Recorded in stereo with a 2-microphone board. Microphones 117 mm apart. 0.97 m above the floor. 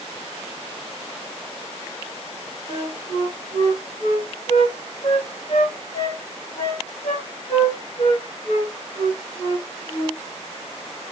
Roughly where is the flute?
Left.